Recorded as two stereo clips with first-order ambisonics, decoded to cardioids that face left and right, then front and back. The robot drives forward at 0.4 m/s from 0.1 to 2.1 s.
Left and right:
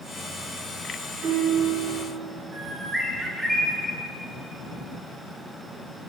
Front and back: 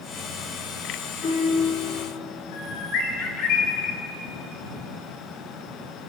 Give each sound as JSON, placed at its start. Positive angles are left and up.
{"t": 1.2, "sound": "a guitar", "azimuth_deg": -55, "distance_m": 3.5}
{"t": 2.5, "sound": "a bird", "azimuth_deg": -10, "distance_m": 1.5}